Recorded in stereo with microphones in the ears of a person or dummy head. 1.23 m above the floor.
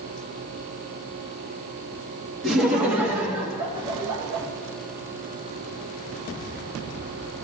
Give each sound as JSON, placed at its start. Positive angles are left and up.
{"t": 2.4, "sound": "laughter", "side_deg": -5, "distance_m": 1.9}